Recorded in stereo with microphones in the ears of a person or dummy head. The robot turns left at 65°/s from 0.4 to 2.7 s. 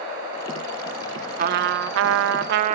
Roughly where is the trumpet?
Ahead right.